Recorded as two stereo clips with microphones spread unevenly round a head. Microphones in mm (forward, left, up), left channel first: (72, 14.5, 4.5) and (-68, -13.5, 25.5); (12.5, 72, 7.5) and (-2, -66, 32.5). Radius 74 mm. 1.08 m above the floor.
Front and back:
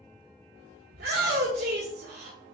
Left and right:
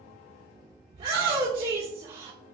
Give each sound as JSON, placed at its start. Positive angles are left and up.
{"t": 0.9, "sound": "a shout", "azimuth_deg": -150, "distance_m": 1.6}